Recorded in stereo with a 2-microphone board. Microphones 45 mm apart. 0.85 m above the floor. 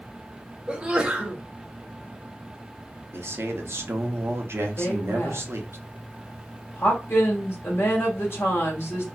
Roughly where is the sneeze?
Right.